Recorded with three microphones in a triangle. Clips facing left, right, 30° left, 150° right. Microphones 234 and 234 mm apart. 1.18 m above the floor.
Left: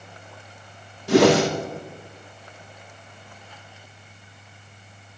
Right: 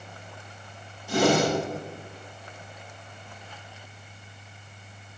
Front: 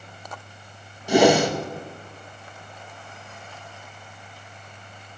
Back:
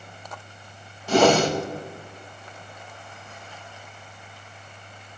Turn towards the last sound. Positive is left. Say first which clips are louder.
# left 6 dB, front 1 dB
turn(degrees=105)